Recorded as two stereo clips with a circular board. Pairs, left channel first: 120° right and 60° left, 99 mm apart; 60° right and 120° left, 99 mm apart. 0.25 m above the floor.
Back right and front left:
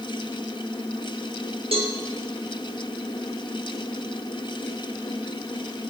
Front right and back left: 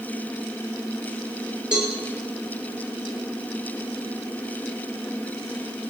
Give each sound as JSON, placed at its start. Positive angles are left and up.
{"t": 1.7, "sound": "a cowbell", "azimuth_deg": 40, "distance_m": 4.0}